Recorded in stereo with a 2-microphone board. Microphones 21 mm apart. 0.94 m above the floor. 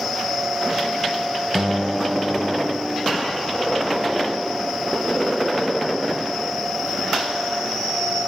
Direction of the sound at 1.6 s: 15° right (ahead or behind).